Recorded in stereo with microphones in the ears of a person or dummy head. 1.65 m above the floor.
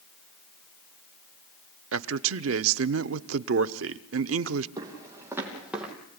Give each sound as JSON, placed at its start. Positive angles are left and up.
{"t": 1.9, "sound": "a man speaking", "side_deg": -80, "distance_m": 0.9}
{"t": 4.8, "sound": "footsteps", "side_deg": -15, "distance_m": 4.0}